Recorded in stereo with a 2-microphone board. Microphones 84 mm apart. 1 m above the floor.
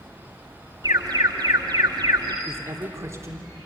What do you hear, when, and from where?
0.8 s an alarm: 50° right (ahead or behind), 2.5 m
2.5 s a man speaking: 35° right (ahead or behind), 3 m